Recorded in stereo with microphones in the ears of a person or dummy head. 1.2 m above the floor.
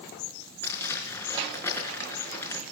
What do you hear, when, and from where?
0.6 s crumpling: 5° left (ahead or behind), 5 m